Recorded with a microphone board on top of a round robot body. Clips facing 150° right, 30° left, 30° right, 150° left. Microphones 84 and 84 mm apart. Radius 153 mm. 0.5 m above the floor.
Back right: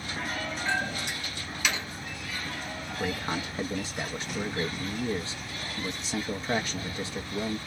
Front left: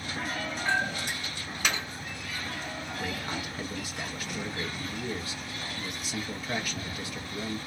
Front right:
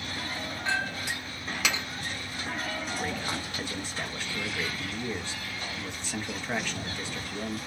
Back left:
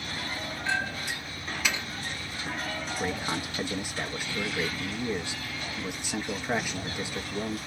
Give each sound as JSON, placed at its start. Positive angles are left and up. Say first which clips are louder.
{"t": 0.7, "sound": "a clink", "louder": "front left 2 dB, even", "azimuth_deg": -20, "distance_m": 1.6}
{"t": 2.9, "sound": "a man speaking", "louder": "back right 5 dB, back left 4 dB", "azimuth_deg": -145, "distance_m": 0.7}